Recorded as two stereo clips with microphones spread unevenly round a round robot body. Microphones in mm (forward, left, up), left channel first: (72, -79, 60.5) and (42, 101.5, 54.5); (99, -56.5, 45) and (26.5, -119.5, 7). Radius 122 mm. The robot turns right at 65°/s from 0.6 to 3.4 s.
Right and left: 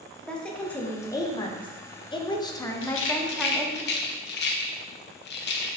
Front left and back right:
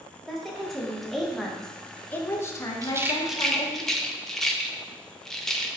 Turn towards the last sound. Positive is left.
turn(degrees=-50)